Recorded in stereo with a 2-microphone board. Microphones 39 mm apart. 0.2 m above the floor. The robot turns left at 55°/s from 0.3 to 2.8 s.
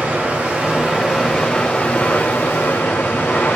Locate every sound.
0.0 s running water: 130° right, 3 m; by 3.6 s 90° left, 3 m